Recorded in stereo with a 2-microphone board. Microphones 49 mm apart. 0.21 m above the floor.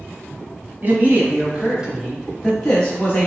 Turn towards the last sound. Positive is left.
turn(degrees=25)  # may be behind; listen again after turning